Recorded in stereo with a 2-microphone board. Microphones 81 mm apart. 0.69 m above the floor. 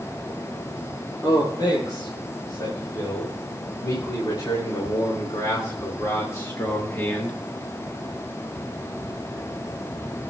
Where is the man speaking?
60° left (ahead or behind), 4.5 m; by 7.4 s 20° left (ahead or behind), 1.0 m.